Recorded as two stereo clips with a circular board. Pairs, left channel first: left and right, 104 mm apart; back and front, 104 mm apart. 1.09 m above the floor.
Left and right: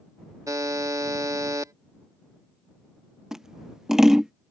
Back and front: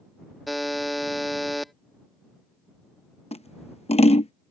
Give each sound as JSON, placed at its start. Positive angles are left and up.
{"t": 0.5, "sound": "a buzzer", "azimuth_deg": -90}
{"t": 3.3, "sound": "scissors", "azimuth_deg": -175}